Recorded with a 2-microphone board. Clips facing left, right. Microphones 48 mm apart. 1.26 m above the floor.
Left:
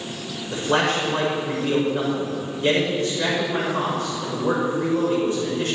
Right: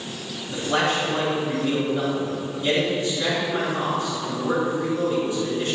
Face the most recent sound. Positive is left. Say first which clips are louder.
# left 2 dB
turn(degrees=55)  # may be behind; listen again after turning